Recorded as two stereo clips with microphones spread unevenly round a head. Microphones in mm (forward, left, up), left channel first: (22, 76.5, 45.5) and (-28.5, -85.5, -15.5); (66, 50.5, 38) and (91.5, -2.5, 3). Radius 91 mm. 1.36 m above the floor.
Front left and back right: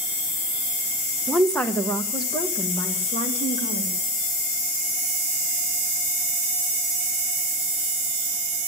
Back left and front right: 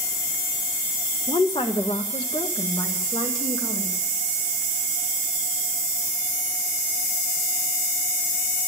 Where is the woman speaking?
165° left, 0.9 m; by 4.0 s 125° left, 2.0 m.